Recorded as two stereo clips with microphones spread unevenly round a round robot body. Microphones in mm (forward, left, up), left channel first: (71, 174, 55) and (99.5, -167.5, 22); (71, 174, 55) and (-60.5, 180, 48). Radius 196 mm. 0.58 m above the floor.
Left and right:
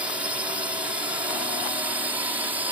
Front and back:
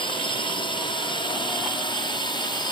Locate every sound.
0.0 s a drone: 10° right; by 2.7 s 15° right